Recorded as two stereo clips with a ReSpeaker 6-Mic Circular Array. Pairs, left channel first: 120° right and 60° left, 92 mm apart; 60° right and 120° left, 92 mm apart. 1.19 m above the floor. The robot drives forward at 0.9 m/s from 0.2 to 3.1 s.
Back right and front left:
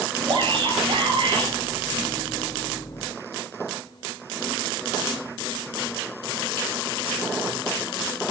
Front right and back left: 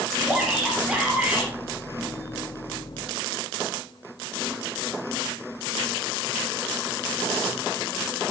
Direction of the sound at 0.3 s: 25° left.